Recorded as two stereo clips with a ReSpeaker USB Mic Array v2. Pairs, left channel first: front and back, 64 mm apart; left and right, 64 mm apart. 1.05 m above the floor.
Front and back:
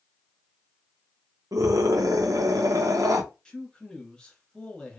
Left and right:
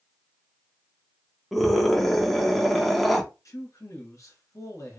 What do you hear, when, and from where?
1.5 s a scream: straight behind, 1.0 m
3.5 s a man speaking: 75° left, 1.8 m